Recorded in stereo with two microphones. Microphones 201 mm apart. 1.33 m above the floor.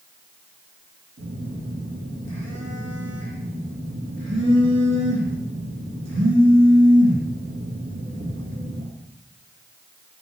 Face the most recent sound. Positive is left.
turn(degrees=-80)